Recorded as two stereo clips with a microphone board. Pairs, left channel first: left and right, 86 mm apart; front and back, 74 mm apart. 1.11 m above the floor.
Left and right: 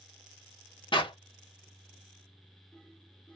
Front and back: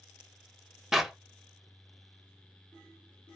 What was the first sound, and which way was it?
A clap, 95° left.